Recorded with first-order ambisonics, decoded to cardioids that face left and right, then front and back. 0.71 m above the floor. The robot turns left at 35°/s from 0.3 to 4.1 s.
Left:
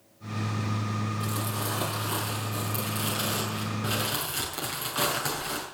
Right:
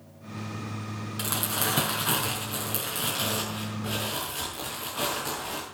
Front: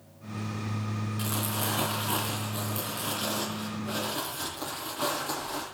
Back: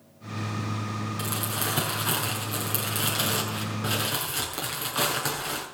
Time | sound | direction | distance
1.2 | crumpling | 105° right | 7 m